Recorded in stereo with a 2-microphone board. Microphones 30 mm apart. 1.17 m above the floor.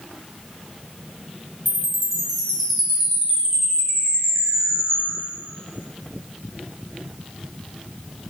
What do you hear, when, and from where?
1.6 s a chime: centre (ahead or behind), 0.8 m